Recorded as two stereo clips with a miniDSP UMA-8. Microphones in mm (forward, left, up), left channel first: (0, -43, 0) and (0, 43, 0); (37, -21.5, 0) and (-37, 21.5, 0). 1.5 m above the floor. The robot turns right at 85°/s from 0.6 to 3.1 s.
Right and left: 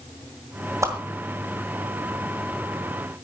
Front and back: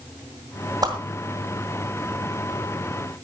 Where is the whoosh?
130° left, 2.0 m; by 0.9 s 145° left, 2.0 m.